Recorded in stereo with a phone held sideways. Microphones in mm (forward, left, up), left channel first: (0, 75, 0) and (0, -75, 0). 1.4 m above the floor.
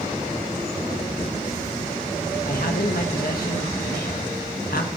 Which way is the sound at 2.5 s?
80° left.